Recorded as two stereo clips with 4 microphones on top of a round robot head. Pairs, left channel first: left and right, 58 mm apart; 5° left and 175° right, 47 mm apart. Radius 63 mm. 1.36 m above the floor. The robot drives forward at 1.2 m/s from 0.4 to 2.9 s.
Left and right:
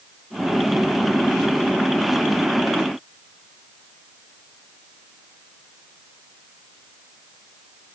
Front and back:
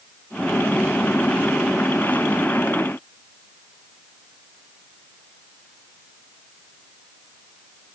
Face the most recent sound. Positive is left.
No sound to turn to.